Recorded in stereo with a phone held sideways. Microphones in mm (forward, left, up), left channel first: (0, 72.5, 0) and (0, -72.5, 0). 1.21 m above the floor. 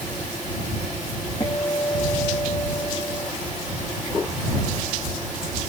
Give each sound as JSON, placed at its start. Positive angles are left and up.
{"t": 1.4, "sound": "a guitar", "side_deg": 25}